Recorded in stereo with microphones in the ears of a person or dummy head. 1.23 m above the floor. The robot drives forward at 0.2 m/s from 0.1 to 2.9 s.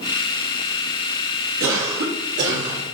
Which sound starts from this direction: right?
A cough, at 1.6 s.